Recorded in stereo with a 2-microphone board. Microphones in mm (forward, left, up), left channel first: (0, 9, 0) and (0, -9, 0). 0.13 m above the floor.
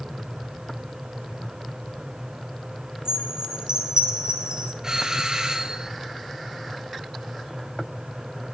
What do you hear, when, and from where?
3.0 s a chime: 45° right (ahead or behind), 6 m
4.8 s a doorbell: 30° right (ahead or behind), 3 m